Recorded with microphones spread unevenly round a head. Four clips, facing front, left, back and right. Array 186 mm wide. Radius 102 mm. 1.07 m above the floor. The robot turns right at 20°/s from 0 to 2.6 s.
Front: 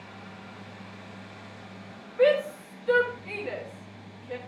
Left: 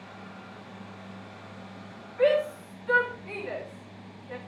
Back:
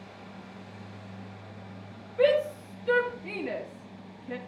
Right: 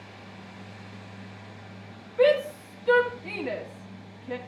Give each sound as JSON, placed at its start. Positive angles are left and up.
{"t": 2.2, "sound": "a shout", "azimuth_deg": -145, "distance_m": 2.5}